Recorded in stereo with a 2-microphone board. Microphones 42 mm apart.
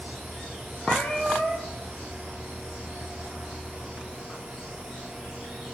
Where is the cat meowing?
30° left (ahead or behind), 3.5 m.